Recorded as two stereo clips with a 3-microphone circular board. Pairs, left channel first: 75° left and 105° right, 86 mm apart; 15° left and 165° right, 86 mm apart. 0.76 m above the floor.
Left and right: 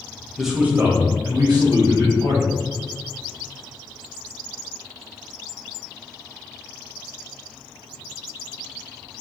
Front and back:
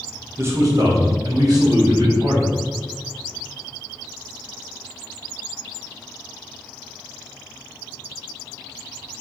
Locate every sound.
0.4 s a man speaking: 165° left, 0.7 m; by 2.5 s 125° right, 2 m